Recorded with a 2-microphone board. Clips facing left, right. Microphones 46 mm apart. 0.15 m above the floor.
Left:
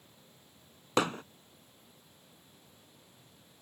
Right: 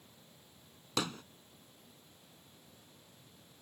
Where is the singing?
No singing in this recording.